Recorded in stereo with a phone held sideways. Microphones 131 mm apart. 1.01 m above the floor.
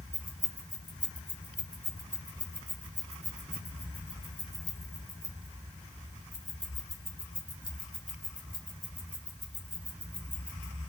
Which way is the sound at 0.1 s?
70° right (ahead or behind).